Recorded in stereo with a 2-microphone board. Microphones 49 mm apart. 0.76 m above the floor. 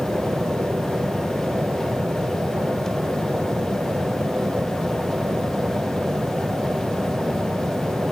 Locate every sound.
0.0 s an aircraft: 50° right (ahead or behind); by 8.1 s 45° right (ahead or behind)